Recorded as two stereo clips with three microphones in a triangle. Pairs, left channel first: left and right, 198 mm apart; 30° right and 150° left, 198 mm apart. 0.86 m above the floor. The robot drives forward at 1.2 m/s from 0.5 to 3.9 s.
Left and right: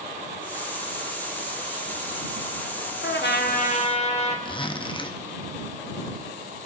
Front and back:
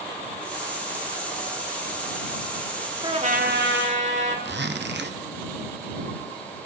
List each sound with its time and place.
3.0 s a trumpet: 85° left, 0.8 m; by 4.3 s 145° left, 1.3 m
4.5 s a zipper: 150° left, 0.6 m